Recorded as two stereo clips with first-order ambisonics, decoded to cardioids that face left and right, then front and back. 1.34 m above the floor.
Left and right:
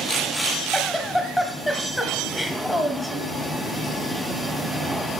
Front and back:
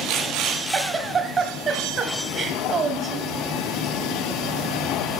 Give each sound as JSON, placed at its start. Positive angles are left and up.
{"t": 0.7, "sound": "a giggle", "azimuth_deg": 165, "distance_m": 1.2}